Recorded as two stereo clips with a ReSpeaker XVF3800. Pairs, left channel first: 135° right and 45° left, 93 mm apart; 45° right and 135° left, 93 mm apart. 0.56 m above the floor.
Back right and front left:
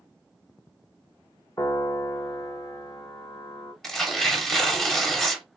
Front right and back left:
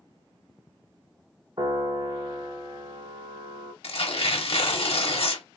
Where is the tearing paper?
45° right, 0.8 m.